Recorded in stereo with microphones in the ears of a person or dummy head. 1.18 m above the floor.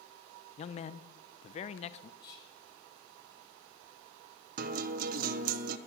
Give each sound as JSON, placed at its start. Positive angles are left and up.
{"t": 0.6, "sound": "a man speaking", "side_deg": 35, "distance_m": 0.5}
{"t": 2.2, "sound": "whispering", "side_deg": 25, "distance_m": 6.5}
{"t": 4.6, "sound": "a guitar", "side_deg": -50, "distance_m": 0.6}